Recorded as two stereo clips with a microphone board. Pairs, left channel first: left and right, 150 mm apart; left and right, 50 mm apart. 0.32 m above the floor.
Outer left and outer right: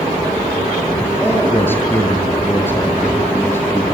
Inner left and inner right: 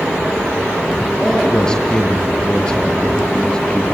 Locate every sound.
1.2 s a man speaking: 15° left (ahead or behind), 6.5 m